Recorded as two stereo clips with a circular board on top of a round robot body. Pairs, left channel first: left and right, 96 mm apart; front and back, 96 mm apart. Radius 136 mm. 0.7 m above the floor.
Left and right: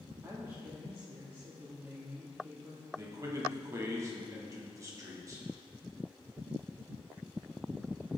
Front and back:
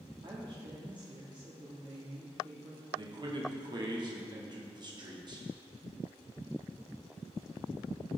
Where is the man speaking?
145° right, 2 m.